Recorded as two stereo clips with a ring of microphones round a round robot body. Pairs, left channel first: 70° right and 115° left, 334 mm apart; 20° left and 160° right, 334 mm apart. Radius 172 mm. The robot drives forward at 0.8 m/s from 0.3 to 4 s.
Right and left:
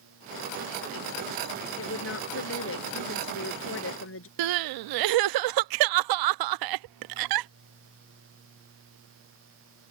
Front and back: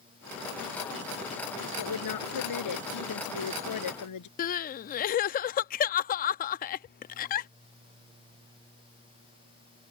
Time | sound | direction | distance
1.8 | a woman speaking | 15° right | ?
4.4 | crying | 90° left | ?